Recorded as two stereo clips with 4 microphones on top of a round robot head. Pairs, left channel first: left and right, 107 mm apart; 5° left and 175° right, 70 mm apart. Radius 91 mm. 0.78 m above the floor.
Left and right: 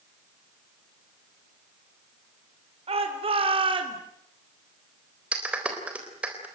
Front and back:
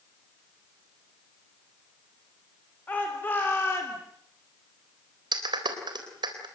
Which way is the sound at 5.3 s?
170° right.